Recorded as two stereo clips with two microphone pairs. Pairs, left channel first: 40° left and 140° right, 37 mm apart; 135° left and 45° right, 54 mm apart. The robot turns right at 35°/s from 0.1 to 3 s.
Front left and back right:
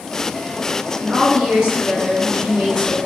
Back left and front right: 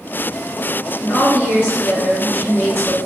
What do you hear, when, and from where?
1.0 s a woman speaking: 150° left, 1.7 m; by 3.0 s 140° right, 1.7 m